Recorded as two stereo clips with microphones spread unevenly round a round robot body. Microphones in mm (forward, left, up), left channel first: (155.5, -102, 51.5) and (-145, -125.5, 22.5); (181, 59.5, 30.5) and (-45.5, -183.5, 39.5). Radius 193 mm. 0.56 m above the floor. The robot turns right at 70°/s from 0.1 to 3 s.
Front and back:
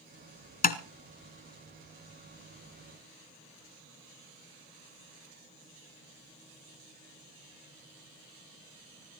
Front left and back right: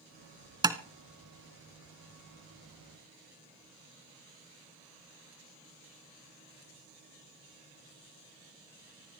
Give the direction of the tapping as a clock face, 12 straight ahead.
2 o'clock.